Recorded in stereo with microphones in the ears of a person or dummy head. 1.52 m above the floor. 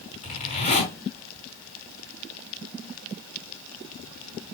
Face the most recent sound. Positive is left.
turn(degrees=35)  # may be behind; listen again after turning